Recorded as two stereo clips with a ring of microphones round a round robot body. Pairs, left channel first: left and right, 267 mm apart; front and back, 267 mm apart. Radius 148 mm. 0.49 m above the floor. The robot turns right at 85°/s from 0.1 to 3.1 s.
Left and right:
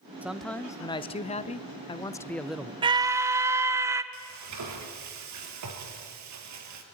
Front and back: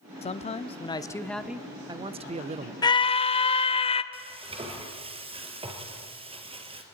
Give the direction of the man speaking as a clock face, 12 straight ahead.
12 o'clock.